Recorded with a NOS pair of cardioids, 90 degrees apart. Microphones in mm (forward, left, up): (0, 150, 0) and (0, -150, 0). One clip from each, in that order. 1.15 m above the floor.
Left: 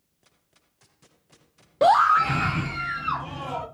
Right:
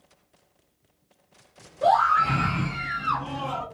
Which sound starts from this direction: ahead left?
A scream, at 1.8 s.